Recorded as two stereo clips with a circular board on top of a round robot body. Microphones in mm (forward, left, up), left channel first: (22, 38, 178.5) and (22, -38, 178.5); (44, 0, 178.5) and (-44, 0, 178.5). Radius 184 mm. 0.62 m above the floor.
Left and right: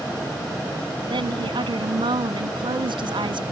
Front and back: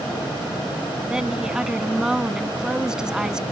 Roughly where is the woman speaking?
Right.